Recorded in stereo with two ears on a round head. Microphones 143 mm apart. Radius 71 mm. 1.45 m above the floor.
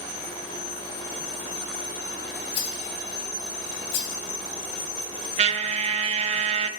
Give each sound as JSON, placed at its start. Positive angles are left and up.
{"t": 2.5, "sound": "a rattle", "side_deg": 80, "distance_m": 2.5}
{"t": 5.4, "sound": "a trumpet", "side_deg": -40, "distance_m": 0.7}